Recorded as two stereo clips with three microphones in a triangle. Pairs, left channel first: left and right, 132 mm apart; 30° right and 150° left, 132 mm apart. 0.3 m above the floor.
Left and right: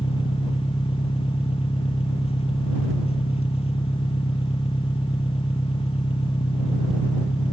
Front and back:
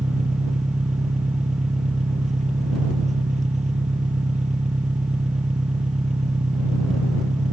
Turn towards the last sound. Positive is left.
turn(degrees=130)